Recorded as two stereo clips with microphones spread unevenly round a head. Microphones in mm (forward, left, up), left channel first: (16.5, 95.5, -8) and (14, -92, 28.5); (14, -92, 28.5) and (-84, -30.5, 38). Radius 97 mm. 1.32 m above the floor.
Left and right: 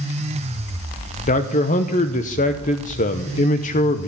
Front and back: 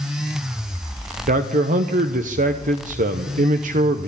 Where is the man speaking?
135° left, 0.8 m.